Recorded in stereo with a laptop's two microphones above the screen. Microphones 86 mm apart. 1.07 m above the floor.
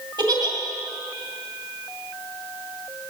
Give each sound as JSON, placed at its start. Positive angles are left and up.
{"t": 0.2, "sound": "a giggle", "side_deg": -55, "distance_m": 2.0}